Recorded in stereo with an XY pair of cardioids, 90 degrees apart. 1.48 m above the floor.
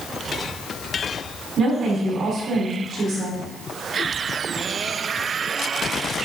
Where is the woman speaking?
60° right, 4 m.